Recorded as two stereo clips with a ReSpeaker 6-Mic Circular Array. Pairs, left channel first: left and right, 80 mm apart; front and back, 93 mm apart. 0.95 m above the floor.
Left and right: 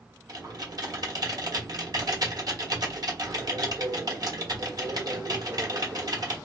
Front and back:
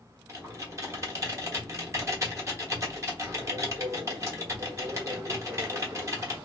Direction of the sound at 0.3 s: 125° right.